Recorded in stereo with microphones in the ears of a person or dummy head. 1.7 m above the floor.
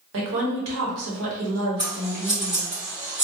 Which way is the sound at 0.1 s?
80° right.